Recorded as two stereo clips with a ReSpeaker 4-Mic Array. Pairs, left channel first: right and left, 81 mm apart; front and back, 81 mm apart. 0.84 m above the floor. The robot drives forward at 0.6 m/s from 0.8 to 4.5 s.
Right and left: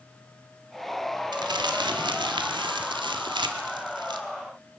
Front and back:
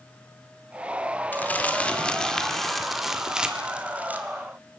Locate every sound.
1.3 s crumpling: 70° left, 2.5 m; by 4.2 s 110° left, 2.5 m